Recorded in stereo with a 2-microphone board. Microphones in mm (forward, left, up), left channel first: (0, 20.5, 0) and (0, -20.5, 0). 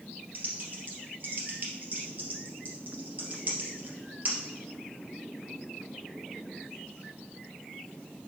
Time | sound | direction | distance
0.3 | typing on a keyboard | 40° right (ahead or behind) | 2.5 m